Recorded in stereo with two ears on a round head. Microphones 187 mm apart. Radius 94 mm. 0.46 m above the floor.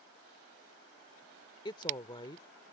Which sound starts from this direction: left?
A woman speaking, at 1.6 s.